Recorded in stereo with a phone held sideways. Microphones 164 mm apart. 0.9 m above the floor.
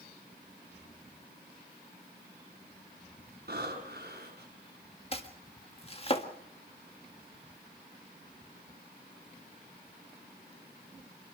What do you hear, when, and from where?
3.5 s breathing: 65° right (ahead or behind), 6 m
5.1 s chopping: 35° left (ahead or behind), 1.7 m